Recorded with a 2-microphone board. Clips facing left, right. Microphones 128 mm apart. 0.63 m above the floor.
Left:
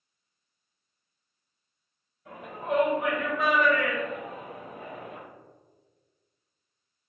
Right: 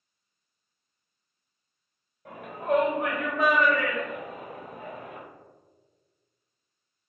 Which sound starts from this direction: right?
A shout, at 2.2 s.